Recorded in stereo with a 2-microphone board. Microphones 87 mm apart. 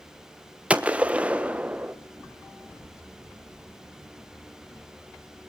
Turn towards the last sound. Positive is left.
turn(degrees=-15)  # may be behind; listen again after turning